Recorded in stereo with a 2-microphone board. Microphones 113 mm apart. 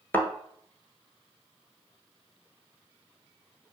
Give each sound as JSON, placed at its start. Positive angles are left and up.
{"t": 0.1, "sound": "a thud", "side_deg": 20, "distance_m": 1.0}